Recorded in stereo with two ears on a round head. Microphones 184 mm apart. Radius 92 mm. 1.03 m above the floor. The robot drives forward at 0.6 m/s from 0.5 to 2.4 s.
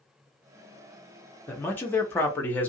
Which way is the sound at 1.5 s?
10° left (ahead or behind).